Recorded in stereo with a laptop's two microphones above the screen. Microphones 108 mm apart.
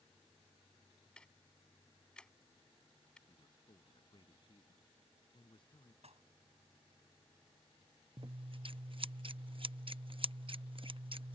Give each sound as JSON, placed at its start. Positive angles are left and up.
{"t": 1.2, "sound": "ticking", "side_deg": 10}
{"t": 3.3, "sound": "a man speaking", "side_deg": 50}
{"t": 6.0, "sound": "dishes clattering", "side_deg": -85}
{"t": 8.2, "sound": "scissors", "side_deg": -55}